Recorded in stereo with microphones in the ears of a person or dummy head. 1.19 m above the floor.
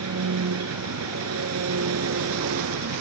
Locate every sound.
0.0 s an engine running: 90° right